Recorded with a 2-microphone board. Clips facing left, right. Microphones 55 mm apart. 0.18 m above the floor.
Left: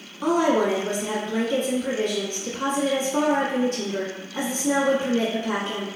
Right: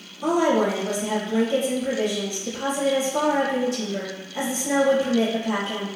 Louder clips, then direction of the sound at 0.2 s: Even; 40° left (ahead or behind).